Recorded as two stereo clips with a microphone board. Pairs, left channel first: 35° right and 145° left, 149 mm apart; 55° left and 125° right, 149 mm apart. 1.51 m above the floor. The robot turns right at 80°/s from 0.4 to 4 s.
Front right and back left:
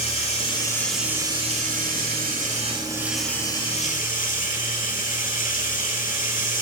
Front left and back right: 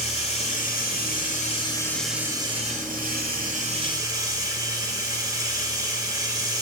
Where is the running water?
15° left, 2.5 m; by 6.6 s 60° right, 2.5 m.